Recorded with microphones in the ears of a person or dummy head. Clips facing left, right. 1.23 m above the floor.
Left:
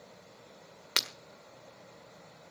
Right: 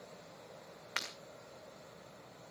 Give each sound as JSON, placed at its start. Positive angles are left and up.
{"t": 1.0, "sound": "breaking glass", "side_deg": 60, "distance_m": 1.5}